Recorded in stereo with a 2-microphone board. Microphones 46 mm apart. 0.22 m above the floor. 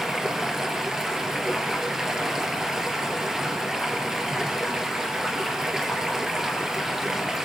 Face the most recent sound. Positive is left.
turn(degrees=-15)  # may be behind; listen again after turning